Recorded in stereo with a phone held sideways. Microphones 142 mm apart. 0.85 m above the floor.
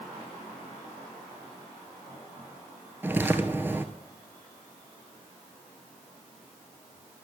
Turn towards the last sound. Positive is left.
turn(degrees=-15)  # may be behind; listen again after turning